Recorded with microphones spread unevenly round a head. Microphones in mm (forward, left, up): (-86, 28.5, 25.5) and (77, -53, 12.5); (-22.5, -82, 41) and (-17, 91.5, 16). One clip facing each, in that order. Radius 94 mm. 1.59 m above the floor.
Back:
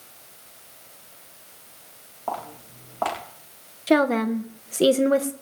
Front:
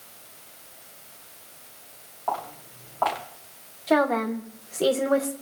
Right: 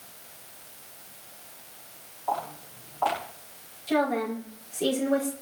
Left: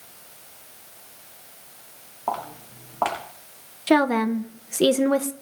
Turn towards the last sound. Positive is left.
turn(degrees=100)